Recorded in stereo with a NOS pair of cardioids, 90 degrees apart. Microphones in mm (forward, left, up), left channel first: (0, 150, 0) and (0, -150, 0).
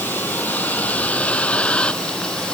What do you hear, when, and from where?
0.0 s a vehicle: 5° left